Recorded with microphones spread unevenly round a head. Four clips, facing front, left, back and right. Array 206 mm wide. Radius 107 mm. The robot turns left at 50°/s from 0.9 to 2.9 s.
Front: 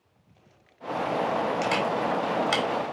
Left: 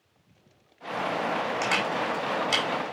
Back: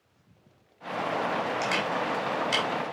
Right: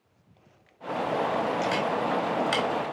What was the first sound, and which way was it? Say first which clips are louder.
A camera shutter: right 1 dB, front 3 dB; 50° left.